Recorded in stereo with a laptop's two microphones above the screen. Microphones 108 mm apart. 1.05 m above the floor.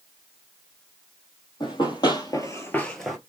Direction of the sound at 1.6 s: 45° left (ahead or behind).